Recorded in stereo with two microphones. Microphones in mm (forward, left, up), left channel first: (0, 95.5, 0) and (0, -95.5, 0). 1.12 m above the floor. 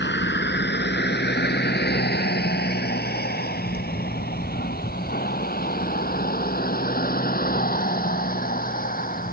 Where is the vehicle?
70° left (ahead or behind); by 9.3 s 50° left (ahead or behind).